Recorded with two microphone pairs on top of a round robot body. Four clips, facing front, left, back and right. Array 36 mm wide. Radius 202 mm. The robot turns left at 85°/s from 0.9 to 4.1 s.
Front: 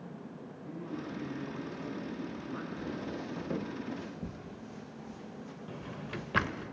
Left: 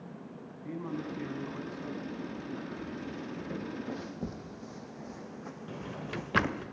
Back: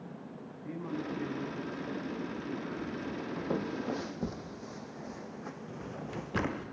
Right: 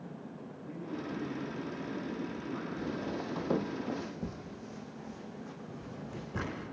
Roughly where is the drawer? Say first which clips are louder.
Left 4 dB, front 2 dB; ahead left.